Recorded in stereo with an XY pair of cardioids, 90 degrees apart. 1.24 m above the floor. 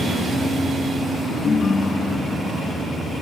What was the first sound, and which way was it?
A ringtone, 35° left.